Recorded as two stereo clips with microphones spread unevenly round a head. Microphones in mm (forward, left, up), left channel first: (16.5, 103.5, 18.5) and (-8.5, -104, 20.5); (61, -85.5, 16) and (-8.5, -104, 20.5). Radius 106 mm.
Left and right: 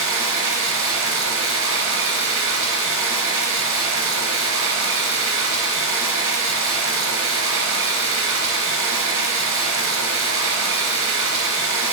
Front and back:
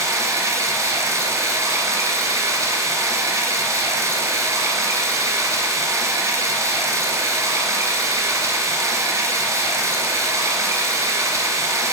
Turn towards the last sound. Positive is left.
turn(degrees=-125)